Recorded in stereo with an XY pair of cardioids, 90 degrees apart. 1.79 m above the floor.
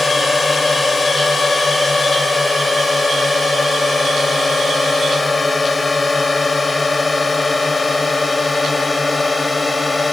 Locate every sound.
0.0 s a drone: 30° left; by 10.1 s 25° left